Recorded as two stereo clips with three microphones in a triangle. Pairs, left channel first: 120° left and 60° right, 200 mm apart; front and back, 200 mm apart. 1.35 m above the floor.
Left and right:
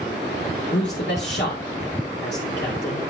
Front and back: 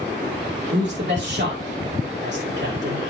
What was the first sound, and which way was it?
A man speaking, 150° left.